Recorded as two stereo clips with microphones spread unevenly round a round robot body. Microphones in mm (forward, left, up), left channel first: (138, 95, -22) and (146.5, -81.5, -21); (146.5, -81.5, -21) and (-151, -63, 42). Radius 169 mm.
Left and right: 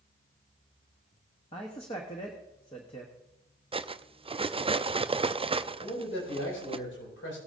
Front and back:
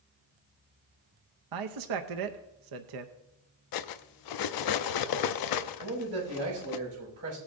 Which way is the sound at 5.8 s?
120° left.